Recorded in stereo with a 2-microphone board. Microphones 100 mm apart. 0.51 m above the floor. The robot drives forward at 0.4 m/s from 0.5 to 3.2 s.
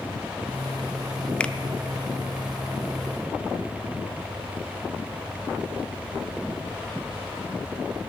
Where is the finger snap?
10° left (ahead or behind), 0.5 m.